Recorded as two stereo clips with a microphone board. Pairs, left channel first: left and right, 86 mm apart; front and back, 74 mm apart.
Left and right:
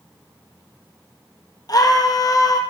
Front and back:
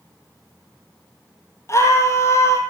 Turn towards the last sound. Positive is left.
turn(degrees=50)